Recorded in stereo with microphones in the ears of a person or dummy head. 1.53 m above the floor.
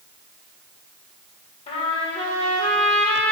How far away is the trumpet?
About 2 m.